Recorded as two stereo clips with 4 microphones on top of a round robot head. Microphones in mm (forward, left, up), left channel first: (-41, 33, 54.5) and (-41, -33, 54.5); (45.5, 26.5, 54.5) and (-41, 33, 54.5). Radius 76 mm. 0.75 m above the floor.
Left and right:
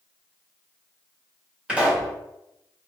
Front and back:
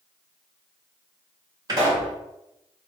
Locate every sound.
1.7 s a pop: 160° right, 1.4 m